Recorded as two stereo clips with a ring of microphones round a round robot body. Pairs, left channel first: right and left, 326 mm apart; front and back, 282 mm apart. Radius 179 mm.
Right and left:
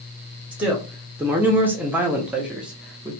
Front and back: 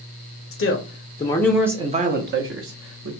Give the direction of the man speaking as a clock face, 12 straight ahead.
12 o'clock.